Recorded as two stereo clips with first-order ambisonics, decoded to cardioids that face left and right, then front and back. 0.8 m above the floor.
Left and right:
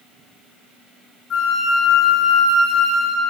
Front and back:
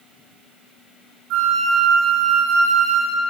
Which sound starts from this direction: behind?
A flute, at 1.3 s.